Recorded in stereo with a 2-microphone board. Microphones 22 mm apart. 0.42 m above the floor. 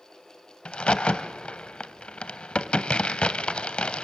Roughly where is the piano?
I don't hear a piano.